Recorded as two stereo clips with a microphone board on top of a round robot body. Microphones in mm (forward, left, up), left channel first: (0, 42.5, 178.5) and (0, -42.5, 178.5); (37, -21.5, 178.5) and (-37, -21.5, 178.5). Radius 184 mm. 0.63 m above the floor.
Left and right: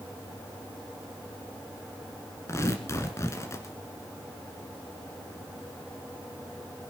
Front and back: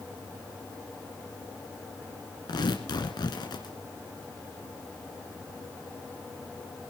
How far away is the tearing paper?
About 1.6 m.